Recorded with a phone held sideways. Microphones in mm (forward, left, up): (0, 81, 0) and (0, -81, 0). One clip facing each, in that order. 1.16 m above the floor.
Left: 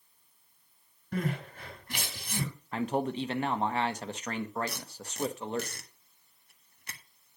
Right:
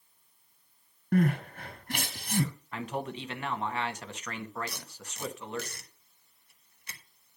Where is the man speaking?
35° left (ahead or behind), 1.1 m.